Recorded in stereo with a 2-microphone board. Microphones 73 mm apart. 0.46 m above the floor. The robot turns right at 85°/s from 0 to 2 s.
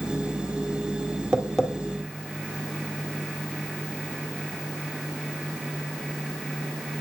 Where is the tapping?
15° right (ahead or behind), 2 m; by 1.7 s 15° left (ahead or behind), 2 m.